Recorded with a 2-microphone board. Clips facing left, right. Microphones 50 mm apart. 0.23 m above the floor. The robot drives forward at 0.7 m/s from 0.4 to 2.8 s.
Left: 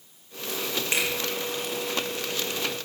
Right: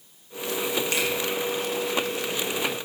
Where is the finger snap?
20° left (ahead or behind), 3 m.